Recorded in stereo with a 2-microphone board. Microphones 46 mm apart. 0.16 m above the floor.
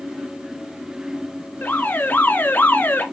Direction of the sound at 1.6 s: 45° left (ahead or behind).